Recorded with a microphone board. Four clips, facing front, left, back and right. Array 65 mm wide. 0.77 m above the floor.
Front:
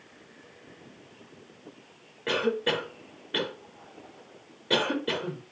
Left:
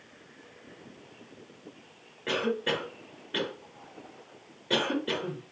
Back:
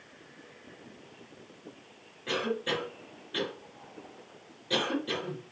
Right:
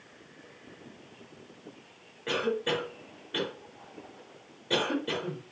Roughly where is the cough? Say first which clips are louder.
Even, front 4 dB; ahead.